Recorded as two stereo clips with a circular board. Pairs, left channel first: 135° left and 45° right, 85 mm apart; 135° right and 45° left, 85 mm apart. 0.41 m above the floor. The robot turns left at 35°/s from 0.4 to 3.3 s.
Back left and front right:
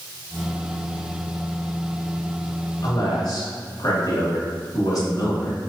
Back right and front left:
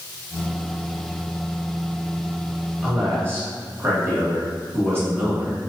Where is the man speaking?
115° left, 1.9 m; by 5.7 s 100° left, 1.9 m.